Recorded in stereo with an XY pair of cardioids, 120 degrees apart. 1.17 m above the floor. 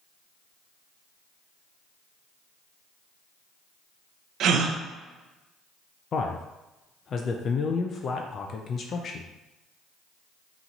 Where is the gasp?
65° right, 0.6 m.